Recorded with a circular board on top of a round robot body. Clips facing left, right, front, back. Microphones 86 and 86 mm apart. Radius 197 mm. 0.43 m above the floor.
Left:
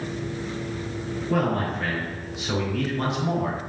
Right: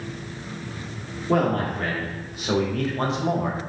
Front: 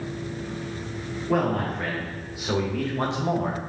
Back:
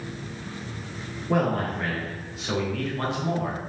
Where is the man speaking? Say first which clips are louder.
Right 3 dB, even; 95° right, 1.8 m; by 3.6 s 35° right, 1.3 m.